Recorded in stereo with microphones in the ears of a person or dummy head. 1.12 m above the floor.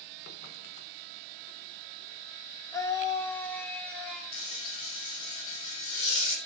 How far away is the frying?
About 5.5 m.